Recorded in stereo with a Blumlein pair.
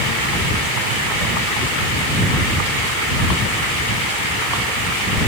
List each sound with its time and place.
Only background noise.